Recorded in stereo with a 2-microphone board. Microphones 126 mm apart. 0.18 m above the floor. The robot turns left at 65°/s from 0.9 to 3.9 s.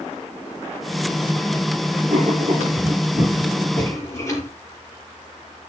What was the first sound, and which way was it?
Writing, 90° right.